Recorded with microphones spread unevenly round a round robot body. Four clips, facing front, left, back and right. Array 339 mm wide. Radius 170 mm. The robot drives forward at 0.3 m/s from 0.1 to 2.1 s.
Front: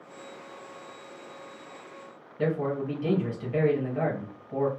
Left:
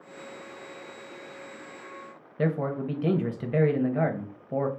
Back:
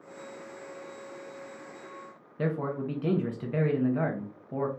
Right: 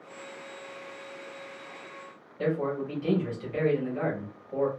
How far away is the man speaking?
About 0.7 m.